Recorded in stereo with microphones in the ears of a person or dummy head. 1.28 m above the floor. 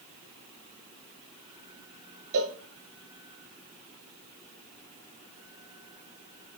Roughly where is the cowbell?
Right.